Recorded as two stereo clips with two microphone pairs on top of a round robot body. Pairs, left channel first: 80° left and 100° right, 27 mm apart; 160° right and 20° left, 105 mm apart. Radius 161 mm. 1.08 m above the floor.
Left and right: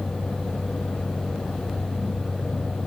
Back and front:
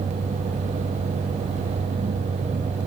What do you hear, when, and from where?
Only background noise.